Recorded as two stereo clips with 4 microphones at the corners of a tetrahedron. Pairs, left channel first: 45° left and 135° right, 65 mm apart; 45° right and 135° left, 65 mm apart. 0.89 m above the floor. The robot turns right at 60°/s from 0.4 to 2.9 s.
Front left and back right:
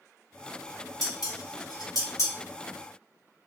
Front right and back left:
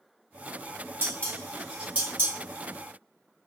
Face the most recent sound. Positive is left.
turn(degrees=125)